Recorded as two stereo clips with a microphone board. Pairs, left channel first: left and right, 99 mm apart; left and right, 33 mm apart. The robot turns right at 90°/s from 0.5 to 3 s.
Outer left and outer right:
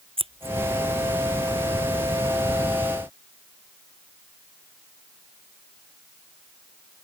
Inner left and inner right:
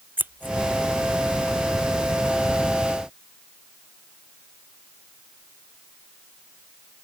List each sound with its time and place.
0.2 s scissors: 65° right (ahead or behind); by 0.6 s 70° right (ahead or behind)